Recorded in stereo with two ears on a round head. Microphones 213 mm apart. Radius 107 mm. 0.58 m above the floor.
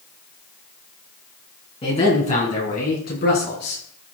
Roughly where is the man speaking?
Left.